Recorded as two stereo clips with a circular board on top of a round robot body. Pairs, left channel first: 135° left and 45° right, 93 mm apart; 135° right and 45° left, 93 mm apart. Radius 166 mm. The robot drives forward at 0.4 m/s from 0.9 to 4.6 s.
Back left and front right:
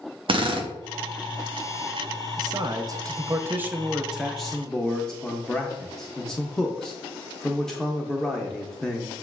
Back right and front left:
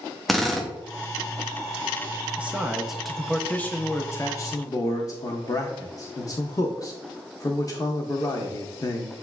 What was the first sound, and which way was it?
A drill, 45° right.